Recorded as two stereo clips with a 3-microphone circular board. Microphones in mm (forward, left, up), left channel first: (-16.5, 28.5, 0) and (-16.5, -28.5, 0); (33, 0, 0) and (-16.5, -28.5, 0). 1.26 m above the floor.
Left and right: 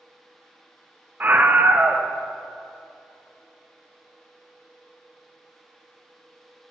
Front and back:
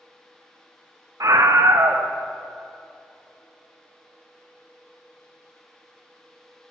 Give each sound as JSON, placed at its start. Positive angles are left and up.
{"t": 1.2, "sound": "a scream", "azimuth_deg": -150, "distance_m": 0.7}